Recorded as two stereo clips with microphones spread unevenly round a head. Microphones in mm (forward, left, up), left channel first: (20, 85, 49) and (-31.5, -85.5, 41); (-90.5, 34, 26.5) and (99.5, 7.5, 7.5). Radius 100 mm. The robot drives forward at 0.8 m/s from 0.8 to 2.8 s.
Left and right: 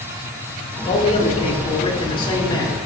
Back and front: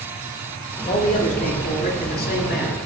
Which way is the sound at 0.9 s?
120° left.